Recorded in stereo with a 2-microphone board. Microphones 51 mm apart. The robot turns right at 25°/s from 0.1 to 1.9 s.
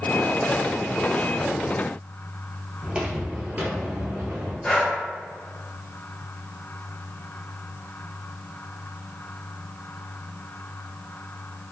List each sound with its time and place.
2.8 s footsteps: 20° right (ahead or behind), 1.2 m; by 4.5 s 45° right (ahead or behind), 1.3 m
4.6 s breathing: 15° left (ahead or behind), 0.7 m